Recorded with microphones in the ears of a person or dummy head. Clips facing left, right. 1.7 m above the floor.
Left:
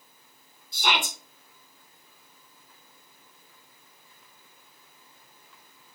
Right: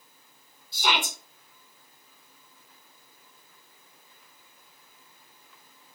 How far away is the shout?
About 1.5 m.